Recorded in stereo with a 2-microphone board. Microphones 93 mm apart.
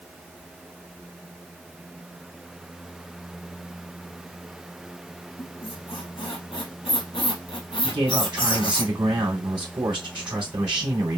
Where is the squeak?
65° left (ahead or behind), 2.5 m.